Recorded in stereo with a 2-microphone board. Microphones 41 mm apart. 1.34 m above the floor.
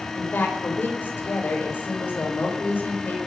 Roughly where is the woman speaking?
Left.